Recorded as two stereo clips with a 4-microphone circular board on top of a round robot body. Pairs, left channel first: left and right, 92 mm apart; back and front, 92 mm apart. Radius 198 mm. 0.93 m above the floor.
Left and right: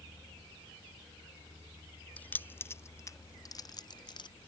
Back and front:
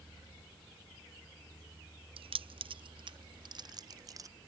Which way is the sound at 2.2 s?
15° left.